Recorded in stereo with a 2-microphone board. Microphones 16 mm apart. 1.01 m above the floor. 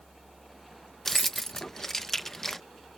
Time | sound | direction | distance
1.1 | keys jangling | 25° left (ahead or behind) | ?